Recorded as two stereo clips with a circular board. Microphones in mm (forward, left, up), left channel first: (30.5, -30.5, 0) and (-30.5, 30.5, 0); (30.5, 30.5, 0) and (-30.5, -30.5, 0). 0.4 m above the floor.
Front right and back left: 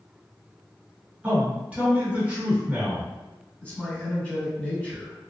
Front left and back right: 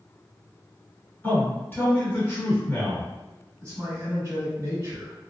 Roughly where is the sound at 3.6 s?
Right.